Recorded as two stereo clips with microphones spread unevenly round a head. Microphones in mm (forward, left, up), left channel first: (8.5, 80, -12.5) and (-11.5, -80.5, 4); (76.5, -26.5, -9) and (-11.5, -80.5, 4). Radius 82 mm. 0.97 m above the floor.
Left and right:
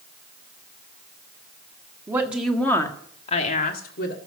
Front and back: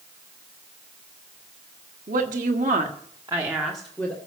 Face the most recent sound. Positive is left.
turn(degrees=110)